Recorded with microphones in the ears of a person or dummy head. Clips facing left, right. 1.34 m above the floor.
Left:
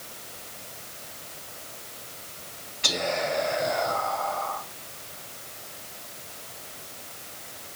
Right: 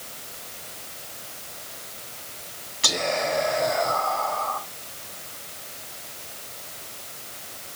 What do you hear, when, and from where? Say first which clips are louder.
2.8 s whispering: right 2 dB; 55° right (ahead or behind), 3 m